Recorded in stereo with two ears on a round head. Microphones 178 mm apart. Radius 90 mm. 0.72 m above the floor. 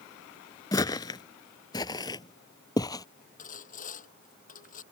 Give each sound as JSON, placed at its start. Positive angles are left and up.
{"t": 0.7, "sound": "footsteps", "side_deg": 20}
{"t": 3.4, "sound": "sawing", "side_deg": 40}